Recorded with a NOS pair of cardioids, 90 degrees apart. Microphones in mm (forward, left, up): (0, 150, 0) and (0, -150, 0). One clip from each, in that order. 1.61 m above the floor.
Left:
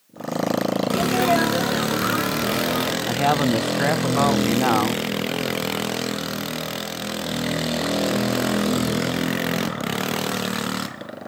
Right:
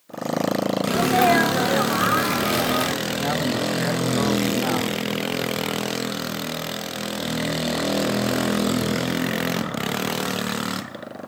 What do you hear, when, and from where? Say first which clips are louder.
0.9 s a sneeze: right 3 dB; 35° right, 0.9 m
3.0 s a man speaking: left 4 dB; 35° left, 0.6 m